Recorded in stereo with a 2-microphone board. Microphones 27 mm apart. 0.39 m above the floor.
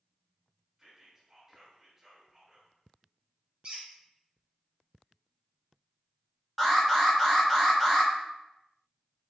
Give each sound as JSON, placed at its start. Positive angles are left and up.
{"t": 0.8, "sound": "whispering", "side_deg": -20, "distance_m": 1.1}
{"t": 3.6, "sound": "a squeak", "side_deg": -40, "distance_m": 1.4}
{"t": 6.6, "sound": "an alarm", "side_deg": 0, "distance_m": 1.2}